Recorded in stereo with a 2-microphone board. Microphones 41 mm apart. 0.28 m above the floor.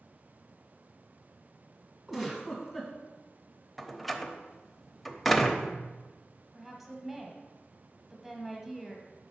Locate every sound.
2.1 s a giggle: centre (ahead or behind), 1.9 m
3.8 s a door slam: 5° left (ahead or behind), 0.6 m
6.5 s a woman speaking: centre (ahead or behind), 1.2 m